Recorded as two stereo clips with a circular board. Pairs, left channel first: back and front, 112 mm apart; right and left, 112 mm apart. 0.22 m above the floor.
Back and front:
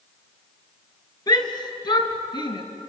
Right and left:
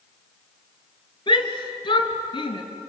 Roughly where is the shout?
Behind right.